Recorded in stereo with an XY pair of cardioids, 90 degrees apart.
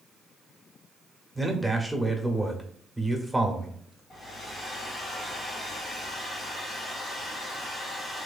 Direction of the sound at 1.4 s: Straight ahead.